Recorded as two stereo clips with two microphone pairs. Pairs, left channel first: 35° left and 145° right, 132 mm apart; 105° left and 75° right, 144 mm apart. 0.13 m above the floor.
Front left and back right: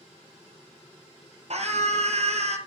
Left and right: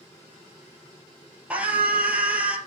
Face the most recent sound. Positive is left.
turn(degrees=-155)